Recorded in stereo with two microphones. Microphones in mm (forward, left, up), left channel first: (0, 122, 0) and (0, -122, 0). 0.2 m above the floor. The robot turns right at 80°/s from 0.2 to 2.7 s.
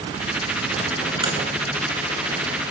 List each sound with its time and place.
1.2 s a crack: 20° right (ahead or behind), 3 m; by 1.3 s 10° right (ahead or behind), 3 m